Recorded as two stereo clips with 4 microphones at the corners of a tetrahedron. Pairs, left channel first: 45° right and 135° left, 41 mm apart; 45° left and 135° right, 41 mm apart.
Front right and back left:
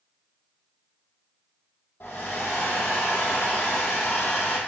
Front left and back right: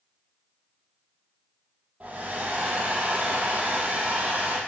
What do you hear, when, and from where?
2.0 s a hair dryer: 80° right, 4 m